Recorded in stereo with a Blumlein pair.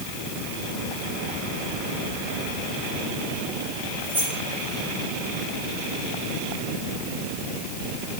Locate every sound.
4.0 s keys jangling: 65° right, 9.5 m